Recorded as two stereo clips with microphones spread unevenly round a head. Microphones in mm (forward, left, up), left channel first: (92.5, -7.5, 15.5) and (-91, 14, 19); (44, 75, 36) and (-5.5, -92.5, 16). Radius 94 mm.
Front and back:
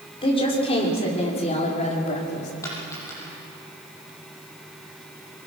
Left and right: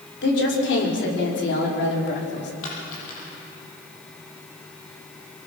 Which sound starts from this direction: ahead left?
A woman speaking, at 0.2 s.